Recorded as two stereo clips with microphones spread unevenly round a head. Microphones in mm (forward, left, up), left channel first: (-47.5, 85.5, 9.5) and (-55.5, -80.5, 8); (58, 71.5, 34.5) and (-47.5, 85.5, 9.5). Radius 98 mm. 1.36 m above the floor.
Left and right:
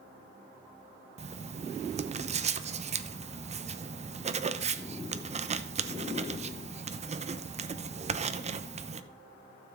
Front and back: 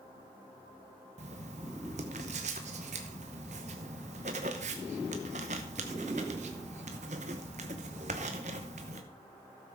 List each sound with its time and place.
1.2 s writing: 145° right, 0.8 m